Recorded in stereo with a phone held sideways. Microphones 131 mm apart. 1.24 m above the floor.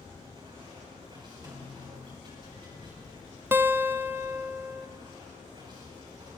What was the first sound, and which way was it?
Running water, 40° right (ahead or behind).